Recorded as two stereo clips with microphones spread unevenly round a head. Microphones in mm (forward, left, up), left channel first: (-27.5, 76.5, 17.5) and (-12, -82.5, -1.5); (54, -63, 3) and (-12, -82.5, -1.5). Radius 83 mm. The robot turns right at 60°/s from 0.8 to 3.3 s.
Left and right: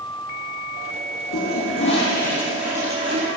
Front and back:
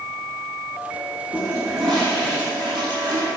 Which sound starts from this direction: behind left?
A toilet flushing, at 1.3 s.